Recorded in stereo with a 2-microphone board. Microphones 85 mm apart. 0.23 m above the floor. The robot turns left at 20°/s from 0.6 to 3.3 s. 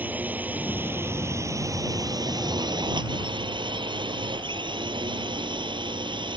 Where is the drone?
20° right; by 6.4 s 75° right.